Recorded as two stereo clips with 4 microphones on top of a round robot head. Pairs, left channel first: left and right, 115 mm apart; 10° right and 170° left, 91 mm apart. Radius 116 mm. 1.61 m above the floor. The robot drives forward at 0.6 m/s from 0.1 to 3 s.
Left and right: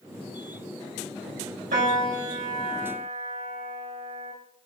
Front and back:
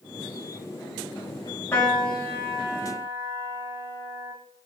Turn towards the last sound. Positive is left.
turn(degrees=-95)